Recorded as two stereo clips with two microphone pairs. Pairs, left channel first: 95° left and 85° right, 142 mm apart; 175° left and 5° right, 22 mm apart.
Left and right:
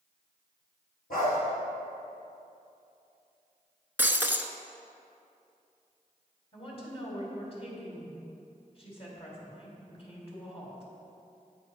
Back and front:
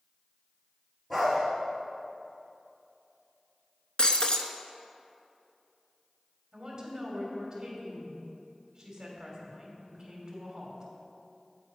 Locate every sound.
1.1 s a dog barking: 85° left, 3 m
4.0 s breaking glass: 155° right, 0.6 m
6.5 s a woman speaking: 55° left, 2.5 m